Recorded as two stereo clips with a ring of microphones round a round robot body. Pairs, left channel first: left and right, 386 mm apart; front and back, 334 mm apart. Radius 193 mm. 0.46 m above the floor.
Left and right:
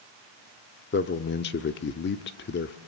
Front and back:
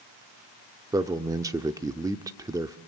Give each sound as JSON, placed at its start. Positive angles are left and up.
{"t": 0.9, "sound": "a man speaking", "azimuth_deg": 110, "distance_m": 0.8}